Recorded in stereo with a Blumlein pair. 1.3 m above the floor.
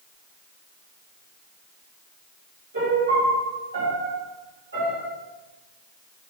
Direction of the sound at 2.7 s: 65° right.